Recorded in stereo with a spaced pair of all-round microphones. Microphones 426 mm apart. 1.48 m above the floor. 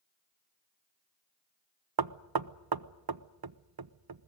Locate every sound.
2.0 s knocking: 60° right (ahead or behind), 0.6 m